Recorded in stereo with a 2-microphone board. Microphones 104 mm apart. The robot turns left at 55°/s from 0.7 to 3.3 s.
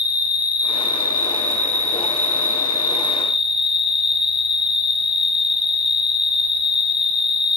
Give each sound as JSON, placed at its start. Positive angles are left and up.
{"t": 0.0, "sound": "an insect", "azimuth_deg": -25, "distance_m": 0.9}